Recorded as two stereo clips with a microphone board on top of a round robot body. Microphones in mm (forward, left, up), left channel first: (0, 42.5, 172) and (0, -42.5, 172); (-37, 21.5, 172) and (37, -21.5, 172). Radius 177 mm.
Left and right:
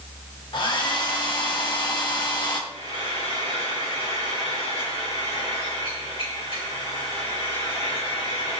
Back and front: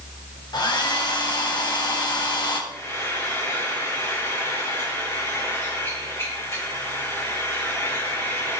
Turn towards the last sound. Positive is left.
turn(degrees=90)